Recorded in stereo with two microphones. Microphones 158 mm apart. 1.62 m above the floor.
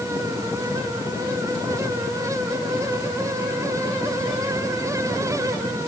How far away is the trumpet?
I don't hear a trumpet.